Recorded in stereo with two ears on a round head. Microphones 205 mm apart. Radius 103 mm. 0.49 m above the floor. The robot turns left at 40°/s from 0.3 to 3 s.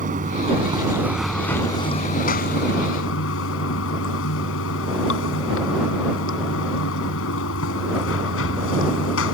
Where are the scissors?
No scissors in this recording.